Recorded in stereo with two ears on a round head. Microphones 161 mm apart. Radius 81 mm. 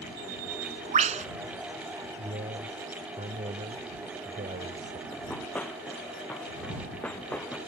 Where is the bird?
40° right (ahead or behind).